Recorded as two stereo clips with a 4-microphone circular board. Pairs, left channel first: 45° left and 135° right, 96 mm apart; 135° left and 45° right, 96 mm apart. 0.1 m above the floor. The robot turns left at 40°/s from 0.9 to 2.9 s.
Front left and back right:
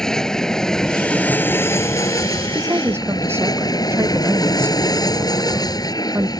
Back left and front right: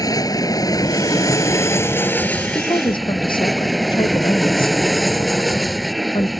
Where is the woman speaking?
175° left; by 6.3 s 160° left.